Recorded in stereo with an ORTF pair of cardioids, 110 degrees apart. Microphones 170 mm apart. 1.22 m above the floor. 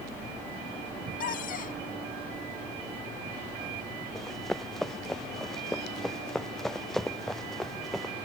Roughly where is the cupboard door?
Ahead left.